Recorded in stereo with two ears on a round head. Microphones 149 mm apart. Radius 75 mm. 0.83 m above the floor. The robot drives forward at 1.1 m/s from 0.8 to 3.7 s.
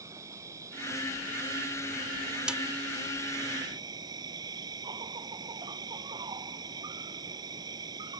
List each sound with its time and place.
0.0 s an insect: 20° right (ahead or behind); by 8.2 s 25° right (ahead or behind)
2.5 s a snare drum: 5° right (ahead or behind)